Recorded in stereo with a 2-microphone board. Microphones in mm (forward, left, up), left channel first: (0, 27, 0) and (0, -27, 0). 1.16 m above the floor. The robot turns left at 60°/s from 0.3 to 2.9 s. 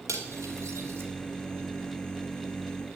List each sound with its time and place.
0.1 s cutlery clinking: 80° right, 2.5 m; by 1.1 s 50° right (ahead or behind), 2.5 m